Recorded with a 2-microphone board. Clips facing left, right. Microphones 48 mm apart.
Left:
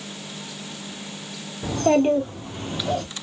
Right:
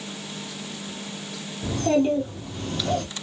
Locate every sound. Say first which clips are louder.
1.6 s a child speaking: left 3 dB; 55° left (ahead or behind), 1.4 m; by 3.0 s centre (ahead or behind), 0.8 m